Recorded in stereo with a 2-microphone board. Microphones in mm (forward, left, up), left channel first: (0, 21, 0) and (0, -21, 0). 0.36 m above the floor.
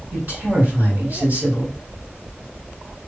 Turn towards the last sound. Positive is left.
turn(degrees=-50)  # may be behind; listen again after turning